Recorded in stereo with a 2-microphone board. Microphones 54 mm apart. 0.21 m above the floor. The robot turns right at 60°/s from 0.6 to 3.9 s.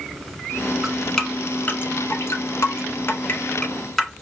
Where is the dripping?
5° right (ahead or behind), 1.3 m; by 4.2 s 5° left (ahead or behind), 1.3 m.